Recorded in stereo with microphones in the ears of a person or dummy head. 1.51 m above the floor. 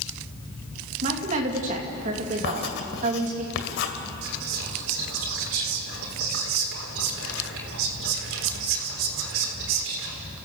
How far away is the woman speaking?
About 2.5 m.